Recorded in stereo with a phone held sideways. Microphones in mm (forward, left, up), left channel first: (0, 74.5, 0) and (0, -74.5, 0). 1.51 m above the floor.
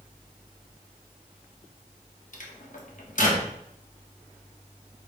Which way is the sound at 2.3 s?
60° left (ahead or behind).